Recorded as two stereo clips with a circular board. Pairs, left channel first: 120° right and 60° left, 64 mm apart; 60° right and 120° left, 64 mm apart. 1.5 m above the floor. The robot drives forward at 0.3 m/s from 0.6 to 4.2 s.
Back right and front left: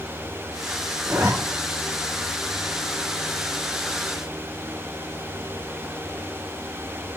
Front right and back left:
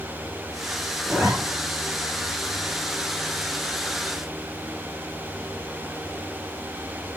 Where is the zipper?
35° left, 1.5 m; by 1.3 s 40° left, 1.5 m.